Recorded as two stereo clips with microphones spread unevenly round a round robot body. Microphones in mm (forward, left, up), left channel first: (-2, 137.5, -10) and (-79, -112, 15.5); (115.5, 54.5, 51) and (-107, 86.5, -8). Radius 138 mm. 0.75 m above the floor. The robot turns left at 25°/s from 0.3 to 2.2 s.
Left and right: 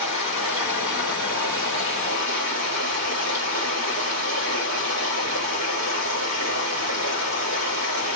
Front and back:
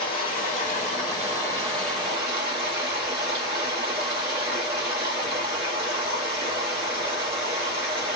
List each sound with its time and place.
0.0 s running water: 65° right, 1.3 m; by 8.2 s 115° right, 1.3 m